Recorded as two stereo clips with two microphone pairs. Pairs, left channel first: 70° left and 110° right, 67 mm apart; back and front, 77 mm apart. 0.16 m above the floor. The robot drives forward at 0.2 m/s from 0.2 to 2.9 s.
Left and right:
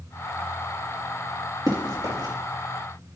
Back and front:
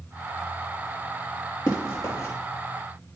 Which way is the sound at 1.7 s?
130° right.